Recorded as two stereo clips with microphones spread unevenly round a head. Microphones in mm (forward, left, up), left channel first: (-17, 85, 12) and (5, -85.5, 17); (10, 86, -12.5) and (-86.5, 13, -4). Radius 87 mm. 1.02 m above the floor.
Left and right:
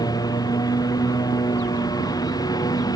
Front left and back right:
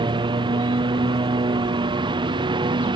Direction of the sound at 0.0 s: 165° left.